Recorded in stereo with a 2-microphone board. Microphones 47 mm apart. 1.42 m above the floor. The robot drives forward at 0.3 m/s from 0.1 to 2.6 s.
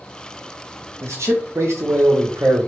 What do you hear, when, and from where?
1.0 s a man speaking: 80° right, 0.8 m; by 2.7 s 65° right (ahead or behind), 0.9 m